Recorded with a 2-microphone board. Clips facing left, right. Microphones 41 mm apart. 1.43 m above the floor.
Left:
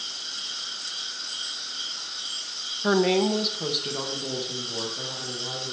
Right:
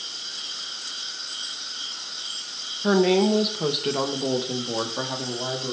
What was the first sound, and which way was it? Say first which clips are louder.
A woman speaking: right 2 dB; 10° left (ahead or behind).